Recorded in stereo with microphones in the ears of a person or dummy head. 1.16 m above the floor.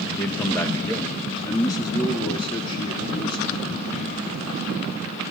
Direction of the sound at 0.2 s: 5° left (ahead or behind).